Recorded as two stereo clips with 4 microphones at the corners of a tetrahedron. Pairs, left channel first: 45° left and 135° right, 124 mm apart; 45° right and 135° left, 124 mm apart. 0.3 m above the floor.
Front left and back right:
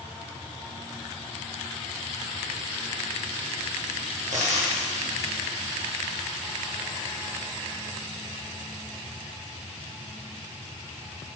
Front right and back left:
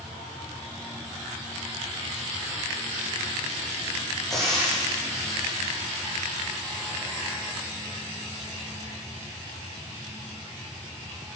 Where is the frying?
130° right, 3 m.